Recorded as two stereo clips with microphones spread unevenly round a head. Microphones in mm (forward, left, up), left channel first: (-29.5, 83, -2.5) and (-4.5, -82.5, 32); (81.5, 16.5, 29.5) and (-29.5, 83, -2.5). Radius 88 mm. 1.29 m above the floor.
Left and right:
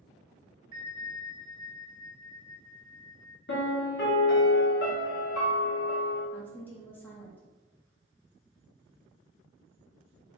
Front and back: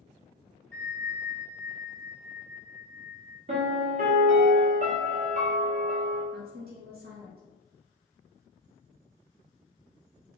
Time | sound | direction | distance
0.7 | a bell | 120° right | 1.2 m
3.5 | a piano | 120° left | 1.2 m
6.3 | a woman speaking | straight behind | 1.2 m